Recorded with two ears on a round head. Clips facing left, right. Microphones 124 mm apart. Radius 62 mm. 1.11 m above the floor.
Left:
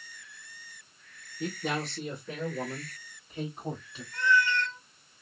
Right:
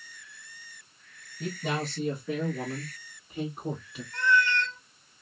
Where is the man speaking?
Centre (ahead or behind), 1.1 m; by 4.0 s 10° right (ahead or behind), 3 m.